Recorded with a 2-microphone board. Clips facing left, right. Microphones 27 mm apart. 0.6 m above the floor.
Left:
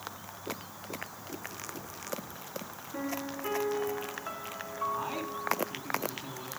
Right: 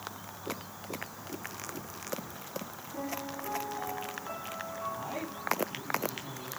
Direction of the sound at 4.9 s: 30° left (ahead or behind).